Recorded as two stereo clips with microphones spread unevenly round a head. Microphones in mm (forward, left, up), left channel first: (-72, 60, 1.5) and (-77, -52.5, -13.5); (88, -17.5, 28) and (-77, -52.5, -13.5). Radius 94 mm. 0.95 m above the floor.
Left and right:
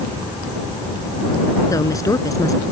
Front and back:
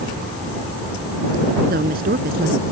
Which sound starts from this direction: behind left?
A woman speaking, at 1.7 s.